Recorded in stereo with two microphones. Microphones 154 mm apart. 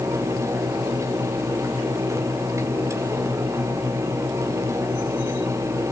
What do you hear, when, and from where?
Only background noise.